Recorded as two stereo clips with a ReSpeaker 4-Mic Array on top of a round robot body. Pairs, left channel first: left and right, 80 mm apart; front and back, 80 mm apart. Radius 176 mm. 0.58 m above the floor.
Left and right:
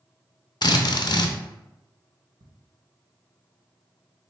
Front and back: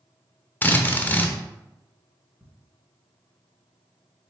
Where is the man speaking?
I don't hear a man speaking.